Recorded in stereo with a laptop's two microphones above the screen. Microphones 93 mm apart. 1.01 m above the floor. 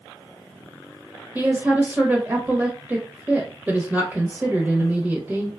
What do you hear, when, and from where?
1.4 s a woman speaking: 15° right (ahead or behind), 0.8 m